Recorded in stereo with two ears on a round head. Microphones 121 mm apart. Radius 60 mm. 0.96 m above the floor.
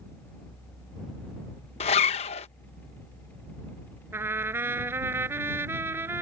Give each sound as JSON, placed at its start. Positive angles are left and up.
{"t": 1.8, "sound": "a zipper", "side_deg": 45}
{"t": 4.1, "sound": "a trumpet", "side_deg": -15}